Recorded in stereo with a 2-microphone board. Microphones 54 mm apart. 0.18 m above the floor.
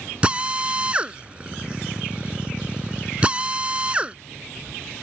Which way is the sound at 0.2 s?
25° right (ahead or behind).